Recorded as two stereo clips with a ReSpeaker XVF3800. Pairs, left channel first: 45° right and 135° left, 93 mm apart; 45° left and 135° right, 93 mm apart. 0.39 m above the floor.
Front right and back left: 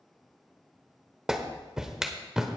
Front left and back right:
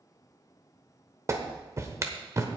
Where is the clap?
150° right, 1.1 m.